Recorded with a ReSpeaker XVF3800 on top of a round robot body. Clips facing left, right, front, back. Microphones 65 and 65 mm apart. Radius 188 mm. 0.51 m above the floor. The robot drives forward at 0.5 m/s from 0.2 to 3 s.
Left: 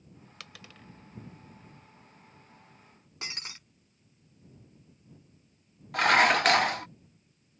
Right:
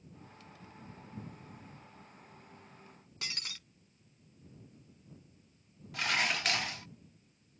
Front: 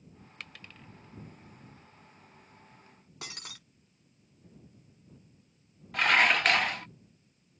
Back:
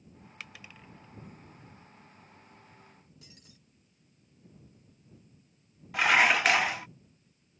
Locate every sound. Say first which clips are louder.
0.4 s a dropped coin: left 6 dB, even; 95° left; by 0.9 s 100° left
3.2 s breaking glass: left 2 dB, front 13 dB; 25° left
5.9 s dishes clattering: left 11 dB, back 1 dB; 100° left